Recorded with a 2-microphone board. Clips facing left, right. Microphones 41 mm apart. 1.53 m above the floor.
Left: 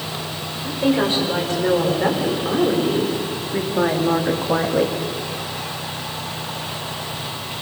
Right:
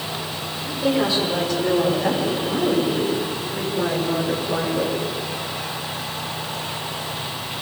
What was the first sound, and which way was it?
A woman speaking, 35° left (ahead or behind).